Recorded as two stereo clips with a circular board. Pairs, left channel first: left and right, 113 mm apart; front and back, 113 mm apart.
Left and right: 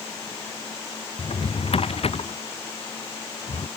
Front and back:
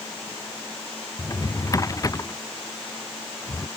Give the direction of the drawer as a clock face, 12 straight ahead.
10 o'clock.